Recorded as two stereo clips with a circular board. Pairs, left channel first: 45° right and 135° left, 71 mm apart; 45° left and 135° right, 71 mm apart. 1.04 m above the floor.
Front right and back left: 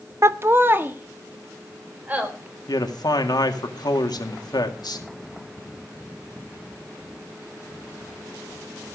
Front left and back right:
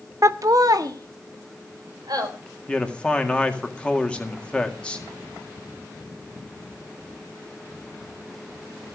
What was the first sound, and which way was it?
Laughter, straight behind.